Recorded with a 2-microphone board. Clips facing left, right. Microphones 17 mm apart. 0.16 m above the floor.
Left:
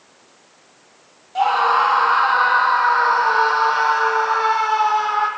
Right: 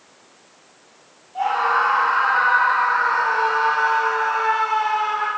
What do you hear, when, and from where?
1.4 s a scream: 50° left (ahead or behind), 4.5 m; by 5.3 s 65° left (ahead or behind), 6 m